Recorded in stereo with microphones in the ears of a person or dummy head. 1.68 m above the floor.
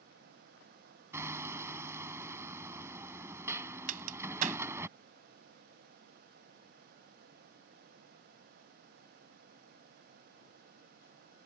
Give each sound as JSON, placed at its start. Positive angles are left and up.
{"t": 1.1, "sound": "hammering", "side_deg": -15}
{"t": 3.9, "sound": "a crack", "side_deg": -50}